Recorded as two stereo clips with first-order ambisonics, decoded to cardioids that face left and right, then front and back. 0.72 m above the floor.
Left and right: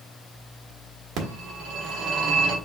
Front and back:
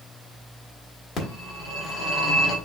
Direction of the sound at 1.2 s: 60° right.